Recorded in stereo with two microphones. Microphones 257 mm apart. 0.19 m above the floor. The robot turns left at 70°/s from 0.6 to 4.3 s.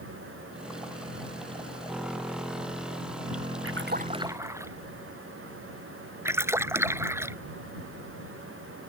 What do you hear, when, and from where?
3.6 s a splash: 125° right; by 4.7 s 170° right
6.2 s a splash: 10° right (ahead or behind)